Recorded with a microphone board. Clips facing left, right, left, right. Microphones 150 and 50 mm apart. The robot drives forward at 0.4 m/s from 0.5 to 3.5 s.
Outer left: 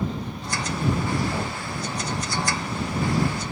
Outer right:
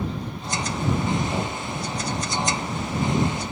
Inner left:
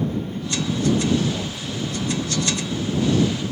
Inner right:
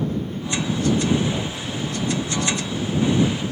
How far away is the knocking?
About 1.0 m.